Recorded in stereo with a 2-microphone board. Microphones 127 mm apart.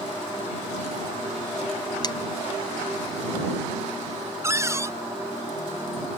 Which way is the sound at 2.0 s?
30° left (ahead or behind).